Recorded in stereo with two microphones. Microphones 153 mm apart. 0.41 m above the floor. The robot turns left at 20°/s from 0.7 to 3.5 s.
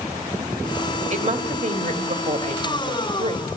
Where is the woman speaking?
75° right, 1.9 m; by 3.5 s 125° right, 1.9 m.